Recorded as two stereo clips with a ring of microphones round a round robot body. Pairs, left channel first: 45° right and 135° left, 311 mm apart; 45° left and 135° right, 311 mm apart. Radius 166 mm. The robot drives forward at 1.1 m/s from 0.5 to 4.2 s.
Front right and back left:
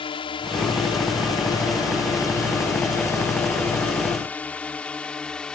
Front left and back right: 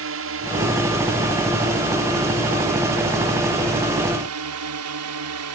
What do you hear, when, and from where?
0.0 s a drone: 115° right; by 5.5 s 130° right